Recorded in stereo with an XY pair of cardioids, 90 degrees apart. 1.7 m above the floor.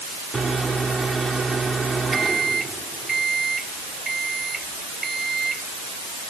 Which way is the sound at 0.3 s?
30° right.